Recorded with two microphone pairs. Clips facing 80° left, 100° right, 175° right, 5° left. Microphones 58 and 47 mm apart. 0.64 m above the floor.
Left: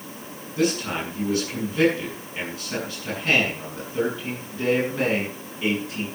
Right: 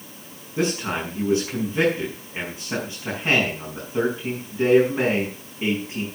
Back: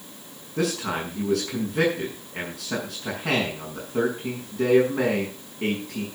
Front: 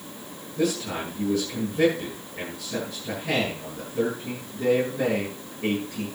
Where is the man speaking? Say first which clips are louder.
Even, even; 170° right, 6 m.